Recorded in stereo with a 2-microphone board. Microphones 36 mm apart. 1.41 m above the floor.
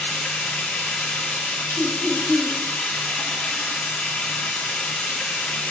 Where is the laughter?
10° left (ahead or behind), 4.5 m.